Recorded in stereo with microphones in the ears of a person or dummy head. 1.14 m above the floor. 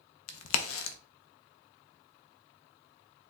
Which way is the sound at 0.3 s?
75° left (ahead or behind).